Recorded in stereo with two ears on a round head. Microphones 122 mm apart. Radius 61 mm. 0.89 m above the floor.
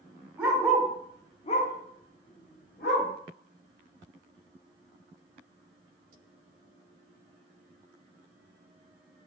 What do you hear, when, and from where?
0.4 s a dog barking: 15° right (ahead or behind), 1.4 m; by 3.1 s 70° left (ahead or behind), 2 m